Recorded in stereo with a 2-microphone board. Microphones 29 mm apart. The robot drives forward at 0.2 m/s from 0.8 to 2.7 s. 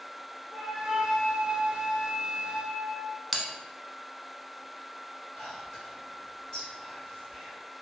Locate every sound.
0.5 s a flute: 35° right (ahead or behind), 0.8 m; by 3.2 s 40° right (ahead or behind), 0.7 m
3.3 s a bell: 5° right (ahead or behind), 0.5 m
5.3 s whispering: 20° left (ahead or behind), 1.7 m